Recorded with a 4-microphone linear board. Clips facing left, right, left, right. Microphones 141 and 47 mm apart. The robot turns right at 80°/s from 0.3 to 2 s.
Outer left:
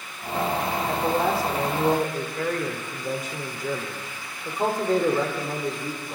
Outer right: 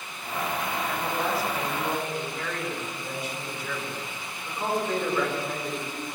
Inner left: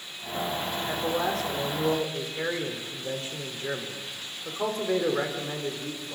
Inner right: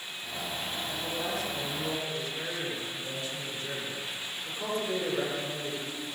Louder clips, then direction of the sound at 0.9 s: Outer left 7 dB, inner left 8 dB; 40° left.